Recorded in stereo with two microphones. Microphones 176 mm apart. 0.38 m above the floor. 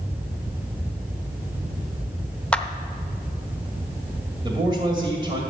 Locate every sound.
2.5 s a clap: 5° left (ahead or behind), 0.6 m
4.4 s a man speaking: 25° right (ahead or behind), 1.9 m